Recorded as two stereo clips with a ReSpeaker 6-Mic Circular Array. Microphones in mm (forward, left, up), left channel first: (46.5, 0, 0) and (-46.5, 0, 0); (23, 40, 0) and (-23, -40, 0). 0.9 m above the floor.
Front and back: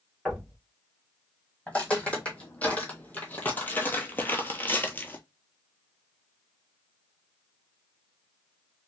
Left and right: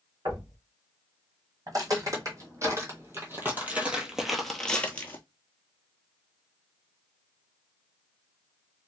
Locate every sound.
0.2 s knocking: 85° right, 1.8 m
1.7 s footsteps: 75° right, 1.9 m; by 5.2 s 35° left, 0.9 m